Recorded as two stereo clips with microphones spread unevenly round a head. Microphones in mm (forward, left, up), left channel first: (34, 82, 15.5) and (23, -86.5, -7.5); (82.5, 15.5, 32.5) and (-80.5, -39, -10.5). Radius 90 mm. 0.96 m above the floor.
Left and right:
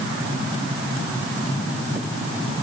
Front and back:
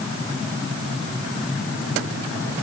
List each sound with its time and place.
Only background noise.